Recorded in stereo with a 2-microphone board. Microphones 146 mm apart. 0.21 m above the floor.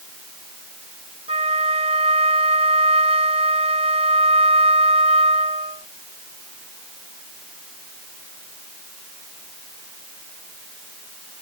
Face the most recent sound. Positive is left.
turn(degrees=-45)  # may be behind; listen again after turning